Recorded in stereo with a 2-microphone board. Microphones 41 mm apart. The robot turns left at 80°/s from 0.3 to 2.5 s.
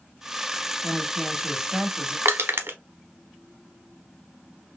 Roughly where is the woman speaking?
Centre.